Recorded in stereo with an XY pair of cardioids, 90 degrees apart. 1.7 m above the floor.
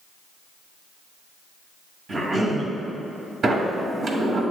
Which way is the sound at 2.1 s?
50° right.